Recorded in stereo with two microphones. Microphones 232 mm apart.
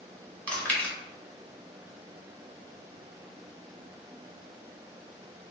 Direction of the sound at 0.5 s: 5° left (ahead or behind).